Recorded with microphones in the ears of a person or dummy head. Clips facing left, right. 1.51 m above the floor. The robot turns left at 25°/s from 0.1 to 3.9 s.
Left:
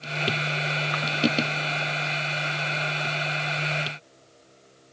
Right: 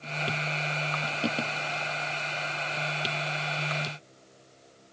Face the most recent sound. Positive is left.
No sound to turn to.